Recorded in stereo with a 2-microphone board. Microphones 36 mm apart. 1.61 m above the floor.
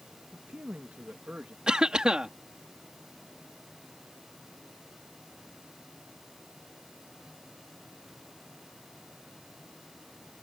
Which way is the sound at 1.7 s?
20° right (ahead or behind).